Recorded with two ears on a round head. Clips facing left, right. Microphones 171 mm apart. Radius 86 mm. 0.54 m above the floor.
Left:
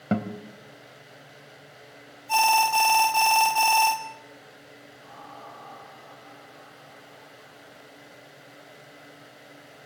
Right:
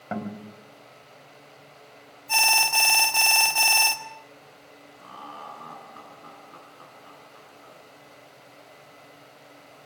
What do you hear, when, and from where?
0.1 s a guitar: 45° left (ahead or behind), 3 m
2.3 s an alarm: 20° right (ahead or behind), 2.5 m
5.0 s laughter: 75° right (ahead or behind), 7 m